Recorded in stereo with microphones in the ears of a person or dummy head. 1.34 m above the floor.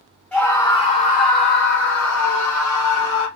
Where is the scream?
10° left (ahead or behind), 1.0 m; by 3.3 s 80° left, 1.6 m.